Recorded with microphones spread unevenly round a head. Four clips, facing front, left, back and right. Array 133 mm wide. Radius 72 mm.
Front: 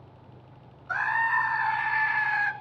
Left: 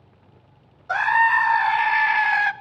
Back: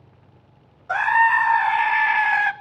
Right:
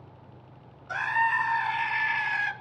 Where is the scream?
140° left, 0.8 m.